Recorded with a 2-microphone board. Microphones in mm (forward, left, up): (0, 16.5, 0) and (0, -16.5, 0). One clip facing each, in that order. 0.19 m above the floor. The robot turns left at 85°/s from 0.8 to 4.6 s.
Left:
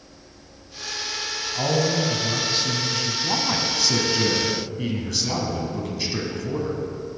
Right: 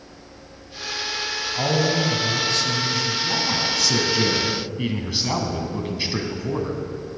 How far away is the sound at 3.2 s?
About 1.4 m.